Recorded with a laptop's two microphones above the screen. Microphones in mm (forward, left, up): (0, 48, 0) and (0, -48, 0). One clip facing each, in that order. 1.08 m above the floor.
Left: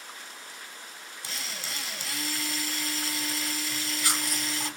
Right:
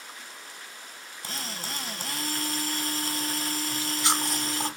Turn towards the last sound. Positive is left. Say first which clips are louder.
# right 5 dB
turn(degrees=-25)  # may be behind; listen again after turning